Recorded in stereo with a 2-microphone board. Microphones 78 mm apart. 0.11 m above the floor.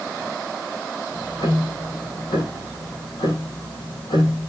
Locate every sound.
1.1 s ticking: 70° left (ahead or behind), 4 m